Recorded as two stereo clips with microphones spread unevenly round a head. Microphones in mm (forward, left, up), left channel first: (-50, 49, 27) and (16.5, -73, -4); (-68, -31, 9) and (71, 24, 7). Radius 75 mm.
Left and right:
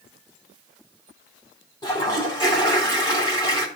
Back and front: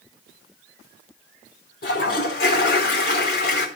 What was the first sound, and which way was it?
A toilet flushing, 175° left.